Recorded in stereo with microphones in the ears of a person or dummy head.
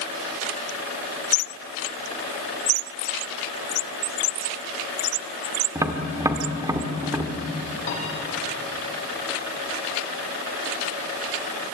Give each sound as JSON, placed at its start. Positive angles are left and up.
{"t": 5.8, "sound": "tapping", "side_deg": -15, "distance_m": 1.8}
{"t": 7.9, "sound": "a piano", "side_deg": 40, "distance_m": 9.5}